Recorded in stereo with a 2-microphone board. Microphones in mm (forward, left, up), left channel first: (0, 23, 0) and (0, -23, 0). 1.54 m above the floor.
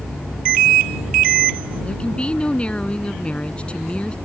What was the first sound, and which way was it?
A woman speaking, 25° left (ahead or behind).